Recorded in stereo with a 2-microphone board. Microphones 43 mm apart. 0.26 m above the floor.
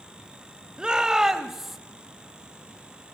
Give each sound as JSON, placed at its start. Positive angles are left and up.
{"t": 0.8, "sound": "a shout", "side_deg": -20, "distance_m": 1.1}